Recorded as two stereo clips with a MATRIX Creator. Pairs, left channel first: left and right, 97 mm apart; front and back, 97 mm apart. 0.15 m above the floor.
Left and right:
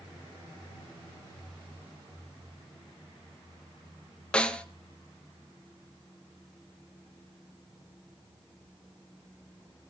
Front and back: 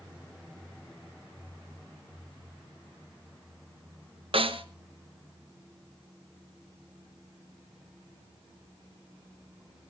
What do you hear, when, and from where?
4.3 s a snare drum: 170° left, 1.0 m